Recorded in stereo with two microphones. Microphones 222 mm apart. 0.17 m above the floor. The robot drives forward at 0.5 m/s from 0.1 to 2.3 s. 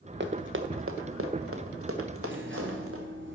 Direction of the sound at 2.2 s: 60° right (ahead or behind).